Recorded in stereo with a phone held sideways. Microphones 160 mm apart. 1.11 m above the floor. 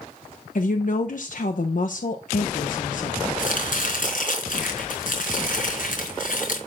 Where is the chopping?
60° left (ahead or behind), 4 m.